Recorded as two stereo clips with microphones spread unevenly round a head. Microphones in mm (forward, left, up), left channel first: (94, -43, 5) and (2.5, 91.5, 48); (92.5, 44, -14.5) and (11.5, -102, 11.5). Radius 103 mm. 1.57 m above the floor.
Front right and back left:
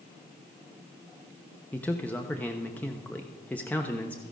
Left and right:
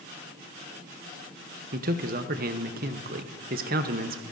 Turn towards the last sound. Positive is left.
turn(degrees=-145)